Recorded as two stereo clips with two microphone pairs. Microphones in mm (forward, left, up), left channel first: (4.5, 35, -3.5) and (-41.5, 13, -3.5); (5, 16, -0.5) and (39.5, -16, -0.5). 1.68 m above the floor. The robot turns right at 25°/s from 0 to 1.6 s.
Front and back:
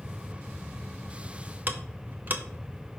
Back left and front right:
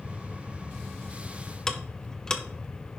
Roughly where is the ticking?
Behind right.